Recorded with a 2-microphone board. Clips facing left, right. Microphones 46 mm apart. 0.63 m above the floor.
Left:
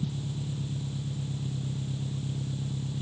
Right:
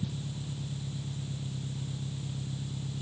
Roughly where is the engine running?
Centre.